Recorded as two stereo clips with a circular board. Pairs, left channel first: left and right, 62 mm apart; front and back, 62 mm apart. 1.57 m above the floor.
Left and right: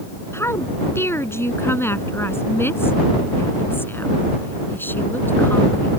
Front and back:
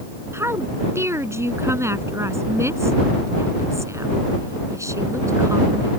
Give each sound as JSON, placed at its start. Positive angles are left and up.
{"t": 0.3, "sound": "a woman speaking", "azimuth_deg": 135}